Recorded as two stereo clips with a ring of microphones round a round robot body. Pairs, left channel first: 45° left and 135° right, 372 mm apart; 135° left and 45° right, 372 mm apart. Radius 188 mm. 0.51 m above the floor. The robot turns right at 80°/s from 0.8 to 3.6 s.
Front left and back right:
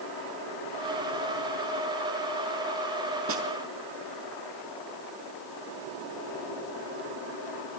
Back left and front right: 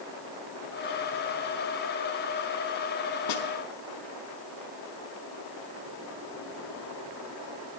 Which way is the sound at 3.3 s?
170° left.